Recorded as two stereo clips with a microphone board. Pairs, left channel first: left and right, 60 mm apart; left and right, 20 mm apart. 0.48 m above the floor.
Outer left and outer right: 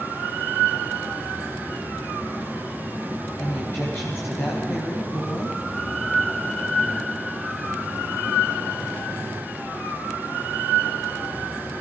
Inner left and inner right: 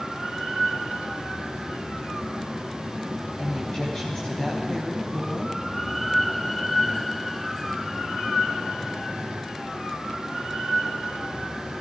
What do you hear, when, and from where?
3.4 s a woman speaking: 35° left (ahead or behind), 3 m